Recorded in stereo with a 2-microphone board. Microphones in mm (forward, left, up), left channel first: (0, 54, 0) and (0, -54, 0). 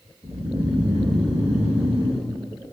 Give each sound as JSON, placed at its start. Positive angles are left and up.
{"t": 0.2, "sound": "snoring", "side_deg": -65, "distance_m": 2.5}